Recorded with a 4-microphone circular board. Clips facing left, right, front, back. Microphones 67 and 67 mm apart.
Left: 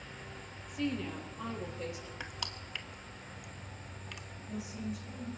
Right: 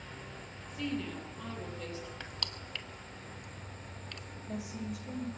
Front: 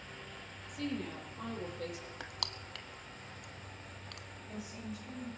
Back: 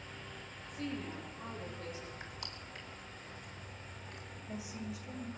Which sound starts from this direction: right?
A woman speaking, at 4.4 s.